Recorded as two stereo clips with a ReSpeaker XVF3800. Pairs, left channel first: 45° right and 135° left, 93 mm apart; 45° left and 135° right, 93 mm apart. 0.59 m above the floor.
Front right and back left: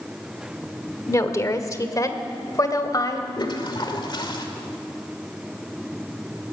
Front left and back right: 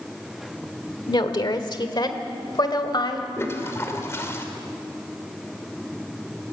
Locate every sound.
1.1 s a woman speaking: 10° left, 1.3 m; by 3.3 s 5° left, 2.5 m
3.4 s a toilet flushing: 15° right, 2 m